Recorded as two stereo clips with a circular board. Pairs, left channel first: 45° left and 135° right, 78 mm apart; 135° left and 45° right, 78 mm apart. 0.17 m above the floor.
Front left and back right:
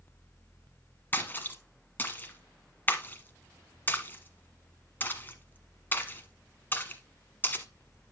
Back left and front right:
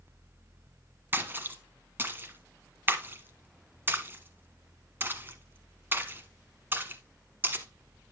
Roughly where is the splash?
Ahead.